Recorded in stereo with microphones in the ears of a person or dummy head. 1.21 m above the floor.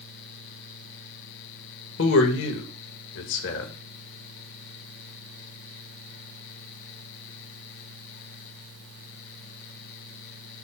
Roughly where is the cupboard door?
No cupboard door in this recording.